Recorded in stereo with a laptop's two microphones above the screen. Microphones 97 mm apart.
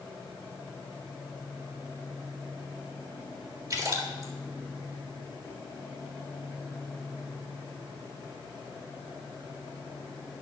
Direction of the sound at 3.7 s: 40° right (ahead or behind).